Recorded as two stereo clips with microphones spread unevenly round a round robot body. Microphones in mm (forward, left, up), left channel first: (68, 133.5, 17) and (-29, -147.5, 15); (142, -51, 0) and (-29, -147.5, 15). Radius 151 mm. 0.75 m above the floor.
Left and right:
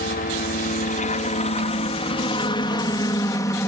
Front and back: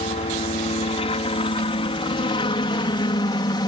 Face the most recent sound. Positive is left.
turn(degrees=0)